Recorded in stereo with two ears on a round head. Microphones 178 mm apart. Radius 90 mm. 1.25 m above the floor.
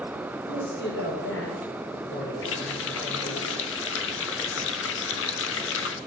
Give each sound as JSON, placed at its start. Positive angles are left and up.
{"t": 0.5, "sound": "a man speaking", "side_deg": 55, "distance_m": 5.0}
{"t": 2.4, "sound": "a running tap", "side_deg": 70, "distance_m": 1.3}